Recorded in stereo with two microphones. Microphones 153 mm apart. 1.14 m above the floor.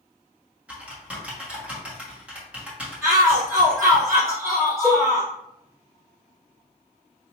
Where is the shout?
20° right (ahead or behind), 1.1 m.